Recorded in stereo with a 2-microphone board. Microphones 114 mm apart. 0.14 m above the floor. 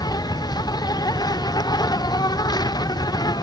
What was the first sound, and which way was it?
An insect, 35° left (ahead or behind).